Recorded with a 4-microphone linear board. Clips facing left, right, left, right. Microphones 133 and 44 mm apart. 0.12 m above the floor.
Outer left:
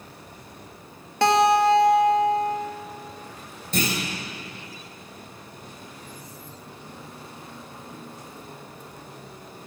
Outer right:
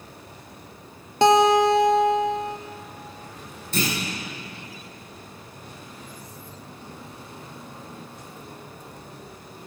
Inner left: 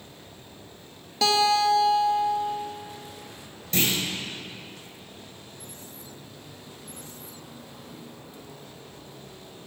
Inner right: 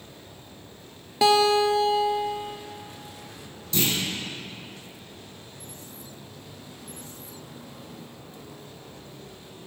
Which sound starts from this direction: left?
A clunk, at 3.7 s.